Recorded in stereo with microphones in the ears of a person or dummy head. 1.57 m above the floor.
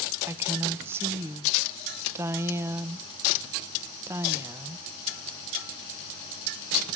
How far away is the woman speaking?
About 1.1 m.